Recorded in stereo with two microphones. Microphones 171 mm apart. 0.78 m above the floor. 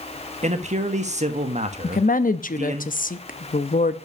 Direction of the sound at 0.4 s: 40° right (ahead or behind).